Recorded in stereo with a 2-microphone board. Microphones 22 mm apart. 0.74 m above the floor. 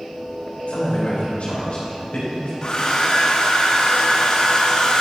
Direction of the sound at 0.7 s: 75° left (ahead or behind).